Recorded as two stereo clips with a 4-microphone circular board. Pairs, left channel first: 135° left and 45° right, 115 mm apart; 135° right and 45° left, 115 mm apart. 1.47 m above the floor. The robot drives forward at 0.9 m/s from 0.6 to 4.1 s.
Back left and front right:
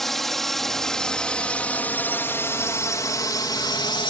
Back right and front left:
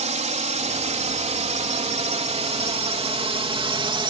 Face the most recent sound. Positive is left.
turn(degrees=90)